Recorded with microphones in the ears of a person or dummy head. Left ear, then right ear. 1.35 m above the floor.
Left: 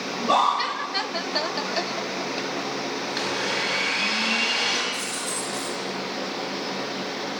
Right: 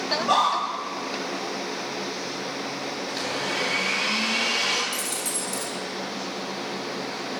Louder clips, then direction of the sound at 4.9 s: Left 1 dB; 40° right (ahead or behind).